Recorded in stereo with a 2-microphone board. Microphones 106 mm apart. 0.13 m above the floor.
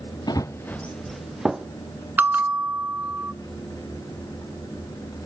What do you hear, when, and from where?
0.3 s running footsteps: 45° left (ahead or behind), 0.6 m; by 1.7 s 5° right (ahead or behind), 1.4 m
2.2 s a bell: 20° right (ahead or behind), 0.6 m